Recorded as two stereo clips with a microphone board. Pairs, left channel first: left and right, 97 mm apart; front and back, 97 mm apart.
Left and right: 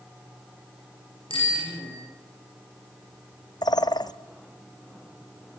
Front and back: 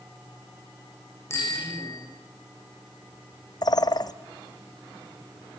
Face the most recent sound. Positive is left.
turn(degrees=45)